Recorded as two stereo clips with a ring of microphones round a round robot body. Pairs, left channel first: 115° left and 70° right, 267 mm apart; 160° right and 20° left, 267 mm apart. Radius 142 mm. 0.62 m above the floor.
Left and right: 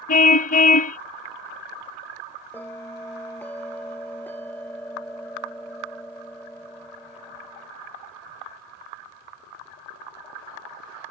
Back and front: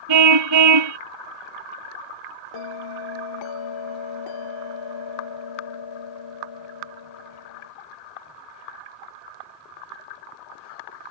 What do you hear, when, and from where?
0.1 s a car horn: 50° left
2.5 s a bell: 165° right